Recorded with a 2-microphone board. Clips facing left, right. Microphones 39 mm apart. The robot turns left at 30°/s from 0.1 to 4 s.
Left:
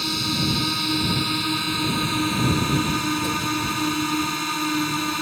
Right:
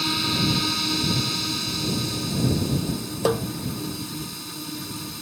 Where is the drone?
170° right; by 5.2 s 75° left.